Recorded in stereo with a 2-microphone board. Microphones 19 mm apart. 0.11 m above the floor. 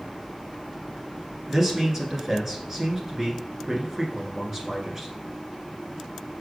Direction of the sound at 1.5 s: 25° right (ahead or behind).